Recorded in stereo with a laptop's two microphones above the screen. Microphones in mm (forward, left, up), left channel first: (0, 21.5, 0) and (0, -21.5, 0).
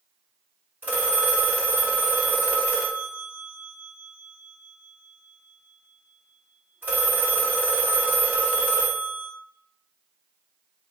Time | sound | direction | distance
0.8 | a phone ringing | 50° right (ahead or behind) | 1.1 m